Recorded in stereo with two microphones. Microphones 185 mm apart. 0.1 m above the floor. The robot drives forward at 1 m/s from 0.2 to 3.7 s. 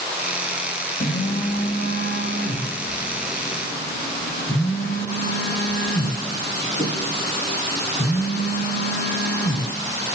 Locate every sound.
1.0 s a phone buzzing: 60° left (ahead or behind), 3 m; by 9.7 s 50° left (ahead or behind), 3.5 m